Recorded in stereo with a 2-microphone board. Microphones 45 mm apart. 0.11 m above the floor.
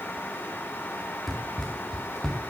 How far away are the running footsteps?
About 1.9 m.